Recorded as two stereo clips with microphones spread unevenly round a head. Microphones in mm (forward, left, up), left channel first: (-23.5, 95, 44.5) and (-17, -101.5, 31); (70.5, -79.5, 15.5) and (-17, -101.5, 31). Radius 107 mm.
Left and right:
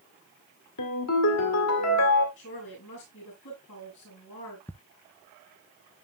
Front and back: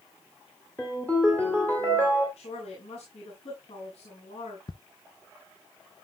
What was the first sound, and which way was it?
A ringtone, 100° left.